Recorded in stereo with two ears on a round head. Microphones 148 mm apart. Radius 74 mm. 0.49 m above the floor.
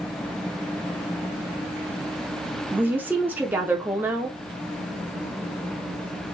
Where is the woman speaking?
10° right (ahead or behind), 0.7 m.